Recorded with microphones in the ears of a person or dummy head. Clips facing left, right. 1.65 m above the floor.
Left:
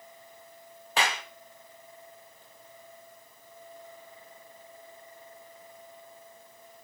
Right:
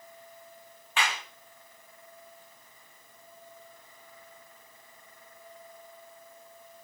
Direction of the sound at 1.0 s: 40° left (ahead or behind).